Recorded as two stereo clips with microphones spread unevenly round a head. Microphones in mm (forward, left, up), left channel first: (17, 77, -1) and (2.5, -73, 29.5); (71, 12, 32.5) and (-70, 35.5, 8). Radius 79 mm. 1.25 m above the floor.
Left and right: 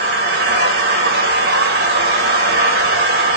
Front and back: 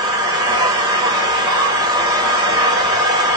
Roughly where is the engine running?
Behind right.